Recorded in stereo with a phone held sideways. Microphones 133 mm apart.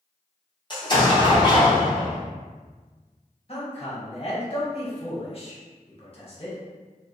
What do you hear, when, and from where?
0.7 s an explosion: 35° left (ahead or behind), 0.8 m
3.5 s a man speaking: 45° left (ahead or behind), 1.0 m